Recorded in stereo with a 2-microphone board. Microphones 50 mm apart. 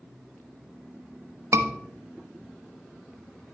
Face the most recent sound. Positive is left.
turn(degrees=-70)  # may be behind; listen again after turning